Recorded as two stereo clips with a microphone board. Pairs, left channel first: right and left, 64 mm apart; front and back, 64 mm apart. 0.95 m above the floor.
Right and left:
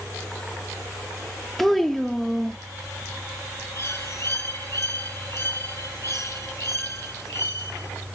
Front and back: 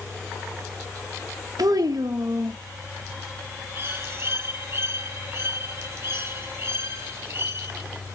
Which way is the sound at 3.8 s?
130° right.